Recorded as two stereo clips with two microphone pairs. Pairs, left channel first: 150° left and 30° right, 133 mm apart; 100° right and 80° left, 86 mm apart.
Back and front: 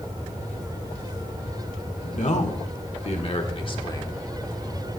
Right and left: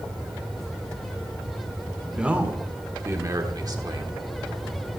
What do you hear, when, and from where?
2.0 s a man speaking: 155° left, 1.6 m; by 4.1 s 90° left, 1.5 m